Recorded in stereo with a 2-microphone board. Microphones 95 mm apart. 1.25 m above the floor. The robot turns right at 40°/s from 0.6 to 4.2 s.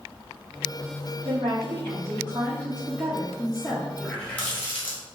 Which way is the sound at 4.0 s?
10° left (ahead or behind).